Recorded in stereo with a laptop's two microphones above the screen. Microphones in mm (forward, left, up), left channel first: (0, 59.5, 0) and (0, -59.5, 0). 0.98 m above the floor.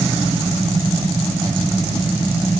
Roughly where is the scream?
No scream in this recording.